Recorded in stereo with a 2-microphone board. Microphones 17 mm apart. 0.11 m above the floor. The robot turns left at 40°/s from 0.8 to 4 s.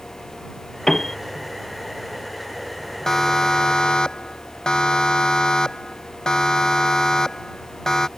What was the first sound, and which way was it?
A piano, 20° left (ahead or behind).